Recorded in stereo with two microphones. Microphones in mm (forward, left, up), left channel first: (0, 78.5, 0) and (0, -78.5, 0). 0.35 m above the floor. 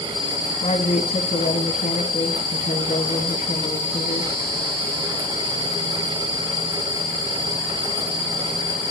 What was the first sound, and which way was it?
A woman speaking, 55° left (ahead or behind).